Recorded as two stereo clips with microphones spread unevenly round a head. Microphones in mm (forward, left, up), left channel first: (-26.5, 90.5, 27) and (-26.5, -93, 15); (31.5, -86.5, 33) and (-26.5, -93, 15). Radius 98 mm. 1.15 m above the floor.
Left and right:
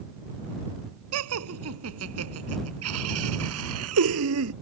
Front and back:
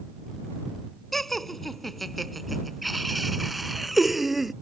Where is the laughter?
80° right; by 4.5 s 85° right.